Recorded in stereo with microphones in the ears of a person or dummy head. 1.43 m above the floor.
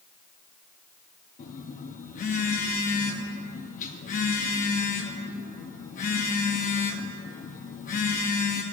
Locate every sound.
1.4 s a phone buzzing: 45° left (ahead or behind), 0.7 m